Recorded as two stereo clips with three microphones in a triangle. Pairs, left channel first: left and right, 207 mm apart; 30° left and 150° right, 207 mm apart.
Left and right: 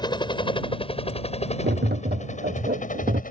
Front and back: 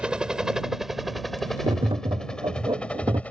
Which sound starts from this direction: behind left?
A helicopter, at 0.0 s.